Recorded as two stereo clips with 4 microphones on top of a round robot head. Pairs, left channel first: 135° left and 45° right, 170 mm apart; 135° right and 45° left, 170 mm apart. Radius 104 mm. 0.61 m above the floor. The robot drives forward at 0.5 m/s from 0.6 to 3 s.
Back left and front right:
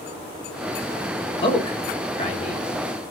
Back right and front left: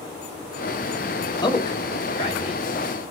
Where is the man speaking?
175° left, 0.9 m.